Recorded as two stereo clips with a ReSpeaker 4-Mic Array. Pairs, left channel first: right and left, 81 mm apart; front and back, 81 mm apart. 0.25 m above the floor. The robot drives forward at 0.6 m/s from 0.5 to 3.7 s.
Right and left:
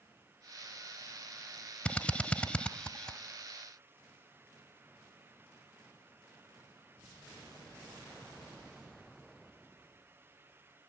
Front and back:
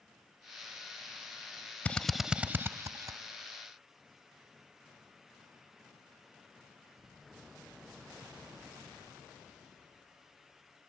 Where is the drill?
40° right, 0.6 m; by 3.2 s 165° right, 0.8 m.